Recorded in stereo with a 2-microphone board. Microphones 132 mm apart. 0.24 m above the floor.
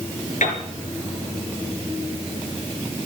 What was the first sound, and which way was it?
A piano, 70° left (ahead or behind).